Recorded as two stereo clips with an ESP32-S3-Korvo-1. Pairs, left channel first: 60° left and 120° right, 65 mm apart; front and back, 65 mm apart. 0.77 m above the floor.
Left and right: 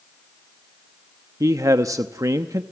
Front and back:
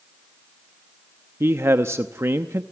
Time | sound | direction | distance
1.4 | a man speaking | 140° right | 0.7 m